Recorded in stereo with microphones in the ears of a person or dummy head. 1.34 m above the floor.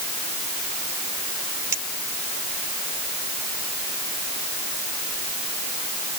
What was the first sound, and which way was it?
A clink, 15° right (ahead or behind).